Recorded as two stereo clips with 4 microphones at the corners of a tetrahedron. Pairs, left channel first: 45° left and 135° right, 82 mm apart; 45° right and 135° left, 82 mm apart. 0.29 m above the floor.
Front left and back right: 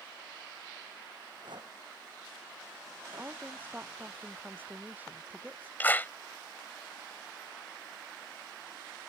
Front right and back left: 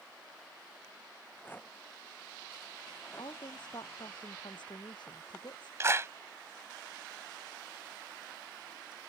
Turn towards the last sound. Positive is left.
turn(degrees=100)